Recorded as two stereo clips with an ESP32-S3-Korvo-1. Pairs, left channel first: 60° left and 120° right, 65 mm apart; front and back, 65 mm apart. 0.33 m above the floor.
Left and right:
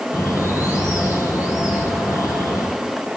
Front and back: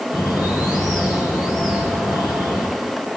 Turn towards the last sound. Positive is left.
turn(degrees=20)